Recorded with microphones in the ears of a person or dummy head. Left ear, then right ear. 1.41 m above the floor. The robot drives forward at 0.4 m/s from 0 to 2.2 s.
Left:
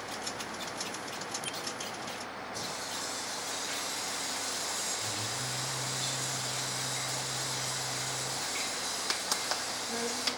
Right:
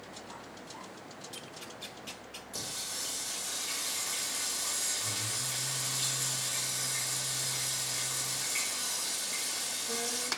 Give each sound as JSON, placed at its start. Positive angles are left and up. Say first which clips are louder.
{"t": 2.5, "sound": "singing", "louder": "even", "side_deg": -45, "distance_m": 3.0}